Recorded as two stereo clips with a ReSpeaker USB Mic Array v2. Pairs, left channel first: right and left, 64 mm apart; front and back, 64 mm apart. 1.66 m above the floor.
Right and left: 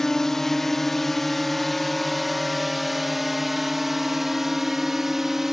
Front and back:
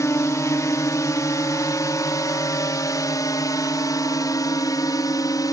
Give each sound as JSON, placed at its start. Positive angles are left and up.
{"t": 0.0, "sound": "a drone", "azimuth_deg": -10}